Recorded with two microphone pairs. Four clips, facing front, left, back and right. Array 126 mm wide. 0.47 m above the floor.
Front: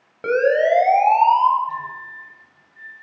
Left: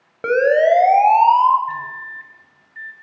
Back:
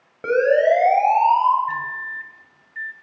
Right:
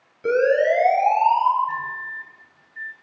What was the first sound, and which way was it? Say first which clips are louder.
A siren: left 4 dB, back 1 dB; 90° left.